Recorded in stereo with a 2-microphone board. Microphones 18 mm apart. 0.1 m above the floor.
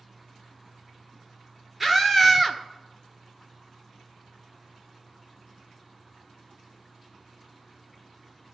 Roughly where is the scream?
Centre.